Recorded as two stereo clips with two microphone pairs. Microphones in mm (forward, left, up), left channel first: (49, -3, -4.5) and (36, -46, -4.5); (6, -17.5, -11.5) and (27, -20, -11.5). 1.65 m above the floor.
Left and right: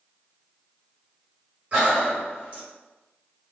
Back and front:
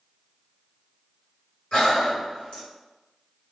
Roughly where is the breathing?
Behind right.